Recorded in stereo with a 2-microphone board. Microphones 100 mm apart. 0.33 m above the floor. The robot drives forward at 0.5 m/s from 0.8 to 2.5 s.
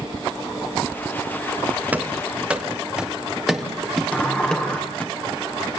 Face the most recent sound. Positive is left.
turn(degrees=15)  # may be behind; listen again after turning